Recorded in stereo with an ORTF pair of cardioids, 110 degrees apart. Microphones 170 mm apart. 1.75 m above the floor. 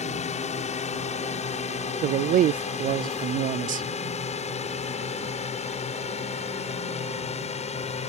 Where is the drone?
40° left; by 8.1 s 35° left.